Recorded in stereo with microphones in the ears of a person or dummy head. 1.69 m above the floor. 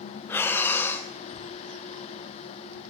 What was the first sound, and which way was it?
Breathing, 10° left (ahead or behind).